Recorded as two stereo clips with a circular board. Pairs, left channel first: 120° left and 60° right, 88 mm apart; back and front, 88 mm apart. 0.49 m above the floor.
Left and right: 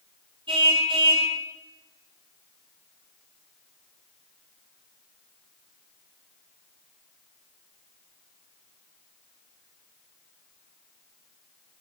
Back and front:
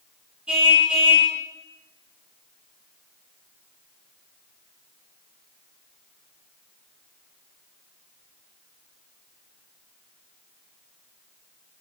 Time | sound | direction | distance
0.5 | a car horn | 80° right | 7 m